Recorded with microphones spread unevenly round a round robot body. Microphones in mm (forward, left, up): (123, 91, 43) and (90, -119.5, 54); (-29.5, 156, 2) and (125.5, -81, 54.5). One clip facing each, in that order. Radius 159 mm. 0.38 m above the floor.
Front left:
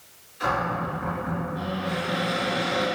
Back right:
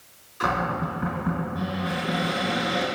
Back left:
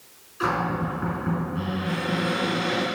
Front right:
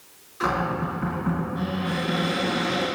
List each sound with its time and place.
0.4 s a cupboard door: 145° right, 2.5 m